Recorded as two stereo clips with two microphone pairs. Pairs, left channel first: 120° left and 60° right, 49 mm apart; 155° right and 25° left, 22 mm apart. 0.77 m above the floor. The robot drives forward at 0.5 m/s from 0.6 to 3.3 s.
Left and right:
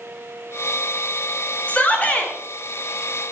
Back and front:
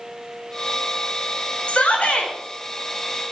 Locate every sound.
1.7 s a shout: straight behind, 2.5 m